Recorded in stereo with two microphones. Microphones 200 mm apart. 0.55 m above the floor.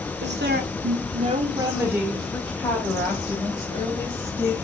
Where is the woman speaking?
60° right (ahead or behind), 1.3 m; by 4.5 s 20° left (ahead or behind), 3.5 m.